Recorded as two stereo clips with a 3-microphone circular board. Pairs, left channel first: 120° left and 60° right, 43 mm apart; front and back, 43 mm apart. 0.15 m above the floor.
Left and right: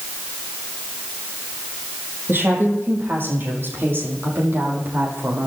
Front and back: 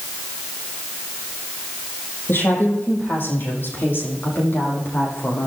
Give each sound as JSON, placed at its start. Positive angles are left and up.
{"t": 2.3, "sound": "a woman speaking", "azimuth_deg": -30, "distance_m": 5.5}